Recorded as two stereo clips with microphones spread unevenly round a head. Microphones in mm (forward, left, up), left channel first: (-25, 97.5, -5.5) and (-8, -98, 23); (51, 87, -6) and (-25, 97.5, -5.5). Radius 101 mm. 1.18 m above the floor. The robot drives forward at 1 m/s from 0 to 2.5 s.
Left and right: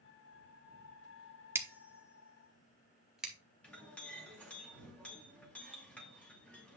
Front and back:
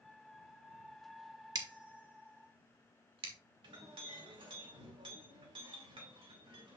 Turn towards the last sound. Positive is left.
turn(degrees=180)